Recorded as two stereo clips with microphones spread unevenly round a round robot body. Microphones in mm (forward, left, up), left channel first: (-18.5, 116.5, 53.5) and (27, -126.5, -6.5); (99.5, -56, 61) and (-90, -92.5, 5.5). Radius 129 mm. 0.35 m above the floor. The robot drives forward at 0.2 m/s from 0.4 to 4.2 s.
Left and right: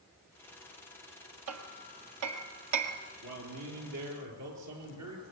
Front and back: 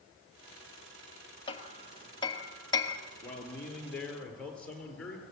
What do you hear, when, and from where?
1.5 s hammering: 50° right, 2 m; by 3.0 s 60° right, 2 m
3.2 s a man speaking: 75° right, 6.5 m